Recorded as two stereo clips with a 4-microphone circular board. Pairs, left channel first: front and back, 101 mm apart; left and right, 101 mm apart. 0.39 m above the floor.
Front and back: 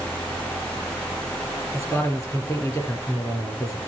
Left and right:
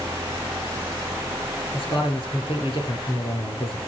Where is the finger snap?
I don't hear a finger snap.